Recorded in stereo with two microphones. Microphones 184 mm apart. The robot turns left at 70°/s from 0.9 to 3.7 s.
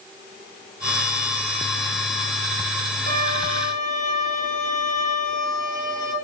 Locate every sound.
3.1 s a violin: 120° left, 1.8 m; by 6.1 s 75° left, 1.8 m